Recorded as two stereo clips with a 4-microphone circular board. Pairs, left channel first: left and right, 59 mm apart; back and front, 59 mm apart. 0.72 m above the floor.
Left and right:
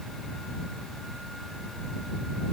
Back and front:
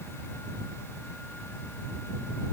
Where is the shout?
I don't hear a shout.